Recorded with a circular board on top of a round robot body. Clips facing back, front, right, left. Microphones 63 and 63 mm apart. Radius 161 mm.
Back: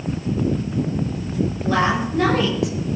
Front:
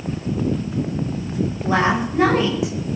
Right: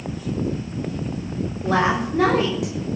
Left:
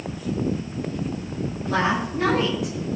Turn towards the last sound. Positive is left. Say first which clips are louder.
# front 1 dB, right 3 dB
turn(degrees=-75)